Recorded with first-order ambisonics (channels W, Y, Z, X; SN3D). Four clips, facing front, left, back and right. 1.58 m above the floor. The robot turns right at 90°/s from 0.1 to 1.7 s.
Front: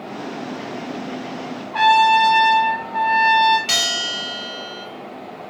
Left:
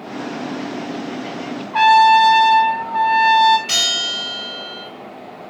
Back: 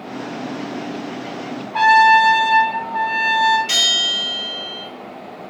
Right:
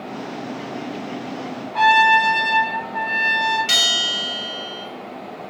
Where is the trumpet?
80° left, 0.9 m.